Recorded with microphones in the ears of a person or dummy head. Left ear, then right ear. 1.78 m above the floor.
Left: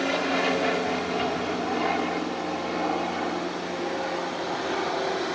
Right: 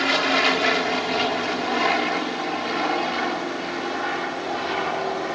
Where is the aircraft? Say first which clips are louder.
Right 5 dB; 50° right (ahead or behind); by 5.4 s 55° right (ahead or behind).